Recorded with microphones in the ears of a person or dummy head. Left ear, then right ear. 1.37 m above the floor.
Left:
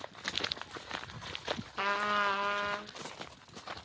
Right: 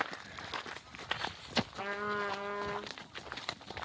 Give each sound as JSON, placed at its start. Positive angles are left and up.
{"t": 1.8, "sound": "a trumpet", "side_deg": 35, "distance_m": 0.8}